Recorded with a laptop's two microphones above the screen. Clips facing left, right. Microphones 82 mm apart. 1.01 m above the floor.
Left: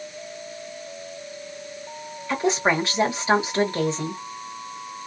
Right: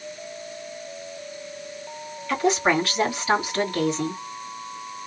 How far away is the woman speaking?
About 1.7 m.